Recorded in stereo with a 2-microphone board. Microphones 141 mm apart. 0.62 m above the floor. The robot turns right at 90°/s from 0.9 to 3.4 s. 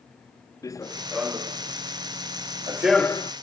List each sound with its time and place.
0.6 s running footsteps: 25° left (ahead or behind); by 3.3 s 40° left (ahead or behind)